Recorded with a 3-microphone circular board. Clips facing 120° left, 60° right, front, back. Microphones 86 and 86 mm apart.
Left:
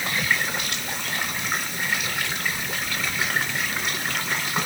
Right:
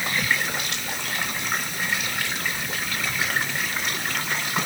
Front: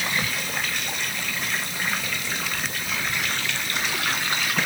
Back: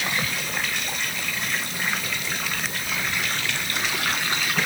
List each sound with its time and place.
Only background noise.